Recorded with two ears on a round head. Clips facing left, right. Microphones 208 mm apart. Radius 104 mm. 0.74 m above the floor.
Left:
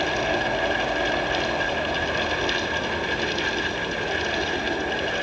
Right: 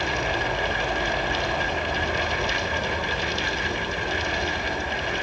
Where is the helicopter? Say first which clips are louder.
Left 3 dB; centre (ahead or behind).